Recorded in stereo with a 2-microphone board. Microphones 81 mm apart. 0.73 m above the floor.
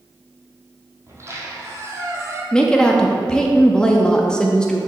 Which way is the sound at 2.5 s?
10° left (ahead or behind).